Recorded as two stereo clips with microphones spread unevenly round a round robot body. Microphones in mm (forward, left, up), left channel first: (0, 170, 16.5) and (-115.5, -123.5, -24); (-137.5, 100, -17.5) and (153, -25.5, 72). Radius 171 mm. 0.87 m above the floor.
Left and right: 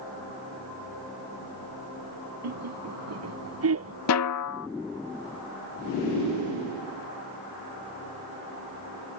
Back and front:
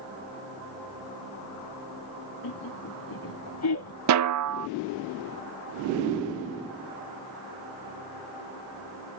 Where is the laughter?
150° right; by 4.0 s 160° right.